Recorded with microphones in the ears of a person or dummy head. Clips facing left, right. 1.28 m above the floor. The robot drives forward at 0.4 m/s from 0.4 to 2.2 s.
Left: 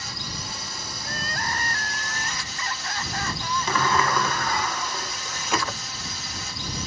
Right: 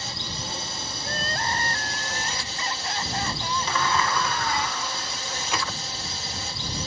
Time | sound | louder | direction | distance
0.0 | a drone | right 1 dB | 25° right (ahead or behind) | ?
1.0 | crying | right 2 dB | 25° right (ahead or behind) | ?
3.7 | a sliding door | left 3 dB | 50° left (ahead or behind) | ?